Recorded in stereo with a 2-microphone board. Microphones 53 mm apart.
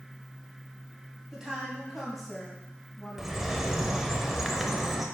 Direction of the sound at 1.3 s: 10° right (ahead or behind).